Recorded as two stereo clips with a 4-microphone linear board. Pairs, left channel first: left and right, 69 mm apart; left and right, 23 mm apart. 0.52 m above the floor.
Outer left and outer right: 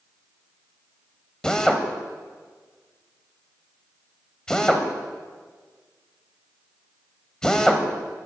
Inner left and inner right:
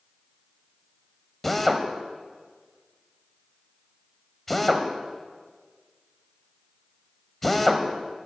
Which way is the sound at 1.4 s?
10° left (ahead or behind).